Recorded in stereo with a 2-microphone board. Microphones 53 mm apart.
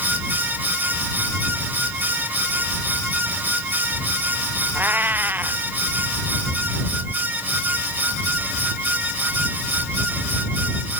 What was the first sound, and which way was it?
A cat meowing, 35° right (ahead or behind).